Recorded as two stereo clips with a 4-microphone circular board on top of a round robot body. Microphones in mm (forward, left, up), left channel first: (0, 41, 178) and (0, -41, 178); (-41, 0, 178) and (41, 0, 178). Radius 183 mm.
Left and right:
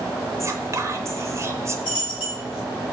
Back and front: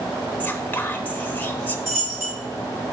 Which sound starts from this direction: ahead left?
A dropped coin, at 1.9 s.